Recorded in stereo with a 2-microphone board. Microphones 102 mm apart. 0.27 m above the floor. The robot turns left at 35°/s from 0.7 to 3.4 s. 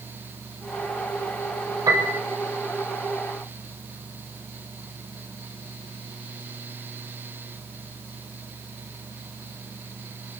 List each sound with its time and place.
1.9 s a piano: 35° right (ahead or behind), 4.5 m; by 2.2 s 25° right (ahead or behind), 4.5 m